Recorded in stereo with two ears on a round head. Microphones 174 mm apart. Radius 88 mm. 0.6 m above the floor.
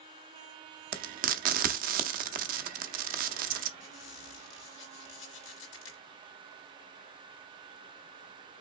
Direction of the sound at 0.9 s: 45° right (ahead or behind).